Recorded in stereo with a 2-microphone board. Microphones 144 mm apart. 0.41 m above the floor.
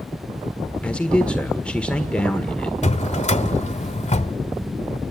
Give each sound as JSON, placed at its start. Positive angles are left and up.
{"t": 0.8, "sound": "a man speaking", "side_deg": 5, "distance_m": 1.5}
{"t": 2.8, "sound": "a drawer", "side_deg": 55, "distance_m": 1.0}